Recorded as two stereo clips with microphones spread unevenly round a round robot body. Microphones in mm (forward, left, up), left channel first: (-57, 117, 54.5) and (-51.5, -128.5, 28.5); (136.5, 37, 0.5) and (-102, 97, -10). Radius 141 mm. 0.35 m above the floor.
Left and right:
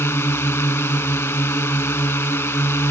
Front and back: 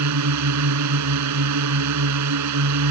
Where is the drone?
170° left.